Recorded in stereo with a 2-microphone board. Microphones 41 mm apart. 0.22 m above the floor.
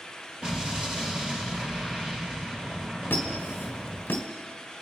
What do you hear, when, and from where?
0.4 s an explosion: 20° right (ahead or behind), 3 m
3.1 s a squeak: 60° left (ahead or behind), 1.6 m